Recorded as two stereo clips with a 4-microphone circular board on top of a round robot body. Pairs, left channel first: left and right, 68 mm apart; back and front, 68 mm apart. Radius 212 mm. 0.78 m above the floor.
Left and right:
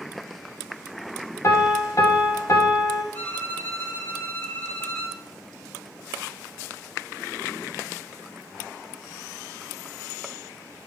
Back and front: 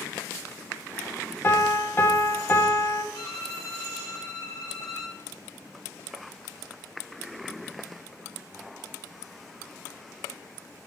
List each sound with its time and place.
1.4 s a piano: 125° left, 1.5 m
3.1 s a violin: 150° left, 1.7 m